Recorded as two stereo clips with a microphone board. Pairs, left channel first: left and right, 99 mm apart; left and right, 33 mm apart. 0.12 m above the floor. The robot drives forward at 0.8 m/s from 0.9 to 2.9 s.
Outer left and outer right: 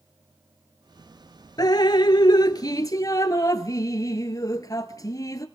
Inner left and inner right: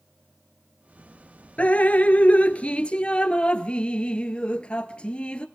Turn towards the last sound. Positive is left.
turn(degrees=35)  # may be behind; listen again after turning